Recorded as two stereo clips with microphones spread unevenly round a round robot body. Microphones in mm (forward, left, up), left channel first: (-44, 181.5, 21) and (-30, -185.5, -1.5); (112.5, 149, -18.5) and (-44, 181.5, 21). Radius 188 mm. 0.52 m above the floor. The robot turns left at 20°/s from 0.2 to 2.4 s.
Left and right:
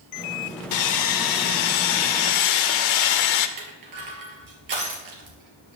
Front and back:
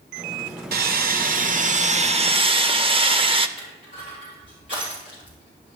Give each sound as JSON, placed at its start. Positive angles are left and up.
{"t": 0.7, "sound": "sawing", "azimuth_deg": 135, "distance_m": 0.8}
{"t": 3.6, "sound": "crushing", "azimuth_deg": -125, "distance_m": 3.0}